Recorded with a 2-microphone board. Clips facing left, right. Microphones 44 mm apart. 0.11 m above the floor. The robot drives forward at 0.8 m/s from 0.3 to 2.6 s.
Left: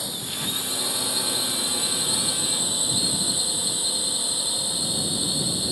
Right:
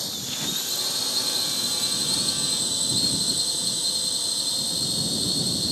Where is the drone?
15° left (ahead or behind).